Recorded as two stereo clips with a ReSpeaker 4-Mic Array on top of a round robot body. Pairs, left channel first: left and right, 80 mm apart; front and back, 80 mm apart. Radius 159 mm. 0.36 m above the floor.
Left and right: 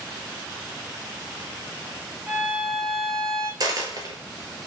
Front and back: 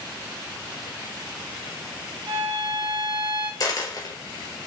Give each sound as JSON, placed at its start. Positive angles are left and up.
{"t": 2.3, "sound": "a violin", "azimuth_deg": -145, "distance_m": 2.5}
{"t": 3.6, "sound": "a dropped coin", "azimuth_deg": -45, "distance_m": 1.8}